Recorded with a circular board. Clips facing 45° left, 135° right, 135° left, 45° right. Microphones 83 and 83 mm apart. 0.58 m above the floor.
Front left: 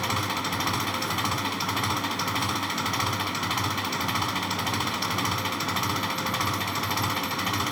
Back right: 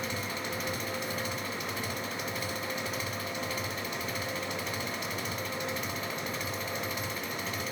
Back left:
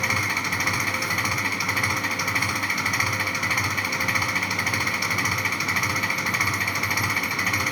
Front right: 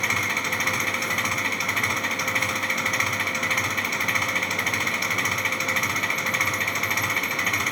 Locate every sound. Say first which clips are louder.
0.0 s an engine running: front left 7 dB, even; 50° left